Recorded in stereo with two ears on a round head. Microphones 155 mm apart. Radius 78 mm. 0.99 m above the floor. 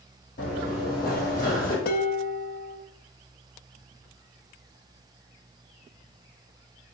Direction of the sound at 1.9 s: 55° left (ahead or behind).